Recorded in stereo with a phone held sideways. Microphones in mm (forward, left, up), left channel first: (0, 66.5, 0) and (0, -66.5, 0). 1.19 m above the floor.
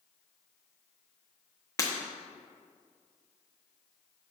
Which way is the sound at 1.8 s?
25° left (ahead or behind).